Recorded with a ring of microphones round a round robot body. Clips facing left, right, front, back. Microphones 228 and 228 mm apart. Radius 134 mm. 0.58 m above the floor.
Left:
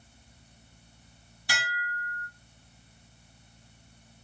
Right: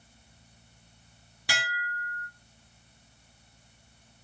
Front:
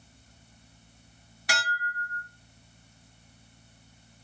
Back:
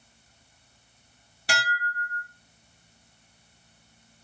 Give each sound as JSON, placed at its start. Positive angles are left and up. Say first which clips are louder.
{"t": 1.5, "sound": "dishes clattering", "louder": "right 1 dB, back 3 dB", "azimuth_deg": -120, "distance_m": 2.0}